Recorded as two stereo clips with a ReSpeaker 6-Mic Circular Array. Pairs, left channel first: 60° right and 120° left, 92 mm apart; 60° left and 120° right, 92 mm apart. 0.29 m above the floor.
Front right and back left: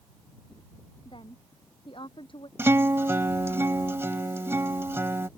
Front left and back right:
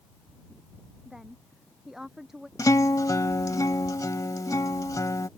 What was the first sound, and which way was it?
A woman speaking, 35° right.